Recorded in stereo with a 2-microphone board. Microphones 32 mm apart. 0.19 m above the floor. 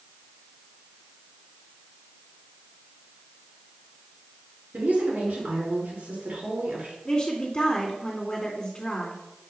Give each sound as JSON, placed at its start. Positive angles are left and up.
{"t": 4.7, "sound": "a woman speaking", "side_deg": -60, "distance_m": 3.0}
{"t": 7.0, "sound": "a woman speaking", "side_deg": 25, "distance_m": 2.0}